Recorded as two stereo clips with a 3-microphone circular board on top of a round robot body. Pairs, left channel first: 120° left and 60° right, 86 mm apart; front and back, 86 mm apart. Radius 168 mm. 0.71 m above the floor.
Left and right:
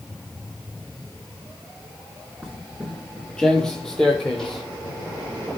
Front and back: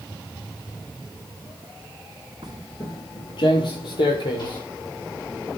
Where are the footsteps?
155° right, 0.7 m; by 4.6 s 35° left, 3 m.